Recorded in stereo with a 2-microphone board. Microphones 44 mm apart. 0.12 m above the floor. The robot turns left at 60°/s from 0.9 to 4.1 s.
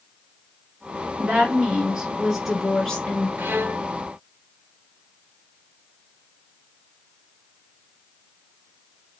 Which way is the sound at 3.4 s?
50° right (ahead or behind).